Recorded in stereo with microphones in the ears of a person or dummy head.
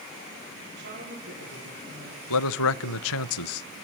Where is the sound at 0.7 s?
55° right (ahead or behind), 4 m; by 3.3 s 40° right (ahead or behind), 5.5 m.